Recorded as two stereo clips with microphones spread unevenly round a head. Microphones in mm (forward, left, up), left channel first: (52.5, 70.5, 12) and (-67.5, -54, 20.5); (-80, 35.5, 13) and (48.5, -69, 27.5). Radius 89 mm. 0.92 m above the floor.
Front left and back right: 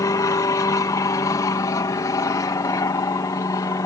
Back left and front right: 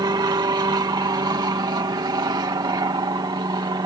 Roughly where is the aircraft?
Ahead.